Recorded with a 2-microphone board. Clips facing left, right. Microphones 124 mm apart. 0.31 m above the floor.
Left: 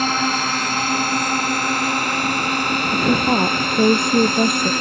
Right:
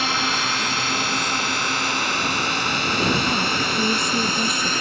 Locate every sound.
0.0 s a drone: 45° left (ahead or behind); by 4.8 s 55° left (ahead or behind)
2.9 s a woman speaking: 60° left (ahead or behind)